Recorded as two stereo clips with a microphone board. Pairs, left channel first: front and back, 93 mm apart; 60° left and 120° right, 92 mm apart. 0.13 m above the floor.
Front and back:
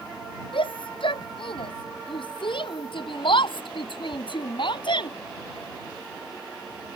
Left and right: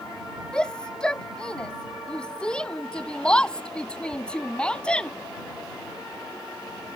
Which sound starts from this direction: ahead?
A shout, at 0.5 s.